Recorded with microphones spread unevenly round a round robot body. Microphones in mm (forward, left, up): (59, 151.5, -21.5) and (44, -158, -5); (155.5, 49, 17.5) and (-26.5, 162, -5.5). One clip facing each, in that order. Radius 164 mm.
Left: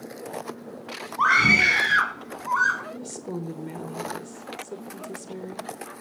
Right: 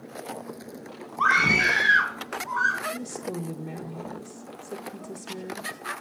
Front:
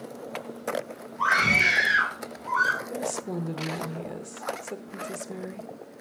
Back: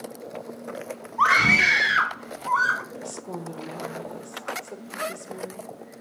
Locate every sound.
1.2 s a scream: 155° left, 3 m; by 2.8 s 115° left, 3.5 m
2.9 s a woman speaking: 15° left, 0.8 m